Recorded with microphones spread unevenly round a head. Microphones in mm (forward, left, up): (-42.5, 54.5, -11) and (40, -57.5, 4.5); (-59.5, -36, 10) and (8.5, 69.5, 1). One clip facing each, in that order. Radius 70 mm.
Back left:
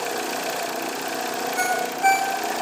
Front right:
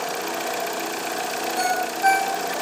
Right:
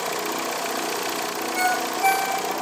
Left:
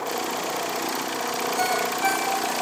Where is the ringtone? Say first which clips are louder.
Front right 2 dB, right 3 dB; 170° right, 3 m.